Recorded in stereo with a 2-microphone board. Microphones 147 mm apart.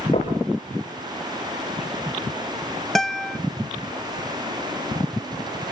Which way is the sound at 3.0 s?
5° left (ahead or behind).